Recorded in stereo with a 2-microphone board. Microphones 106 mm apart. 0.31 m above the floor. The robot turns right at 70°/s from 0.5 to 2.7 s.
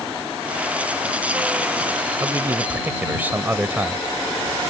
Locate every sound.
2.2 s a man speaking: 65° right; by 4.0 s 30° right